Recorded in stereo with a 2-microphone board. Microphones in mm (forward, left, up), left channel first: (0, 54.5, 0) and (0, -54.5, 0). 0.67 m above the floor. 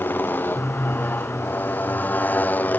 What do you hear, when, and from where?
0.0 s a motorcycle: 15° left (ahead or behind)